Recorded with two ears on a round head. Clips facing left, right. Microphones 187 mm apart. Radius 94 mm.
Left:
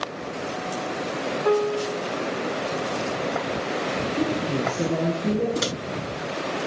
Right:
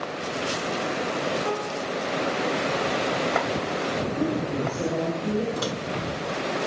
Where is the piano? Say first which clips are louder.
Left 7 dB; 75° left (ahead or behind), 1.7 m.